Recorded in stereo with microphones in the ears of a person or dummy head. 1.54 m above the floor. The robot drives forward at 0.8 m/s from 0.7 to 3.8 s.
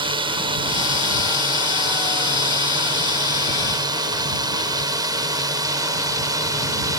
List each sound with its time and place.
0.0 s a drone: 25° right (ahead or behind); by 7.0 s 20° right (ahead or behind)